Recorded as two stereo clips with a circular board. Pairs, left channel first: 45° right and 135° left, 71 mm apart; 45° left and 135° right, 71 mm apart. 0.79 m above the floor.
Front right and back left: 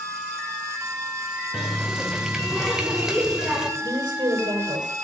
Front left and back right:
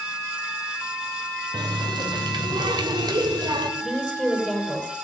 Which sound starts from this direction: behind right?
A running tap, at 1.5 s.